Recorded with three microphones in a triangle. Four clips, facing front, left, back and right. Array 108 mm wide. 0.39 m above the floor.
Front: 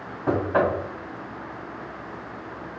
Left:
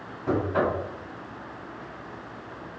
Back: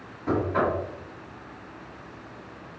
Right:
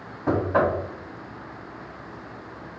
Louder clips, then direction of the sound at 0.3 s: Right 3 dB, front 3 dB; 50° right.